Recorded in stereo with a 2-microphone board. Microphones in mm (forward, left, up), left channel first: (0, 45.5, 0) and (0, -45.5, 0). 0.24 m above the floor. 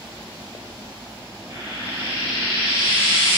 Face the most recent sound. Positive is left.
turn(degrees=-60)  # may be behind; listen again after turning